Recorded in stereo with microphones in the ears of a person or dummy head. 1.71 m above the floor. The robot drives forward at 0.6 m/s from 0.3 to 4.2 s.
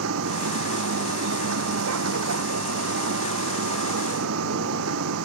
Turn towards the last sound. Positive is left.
turn(degrees=-85)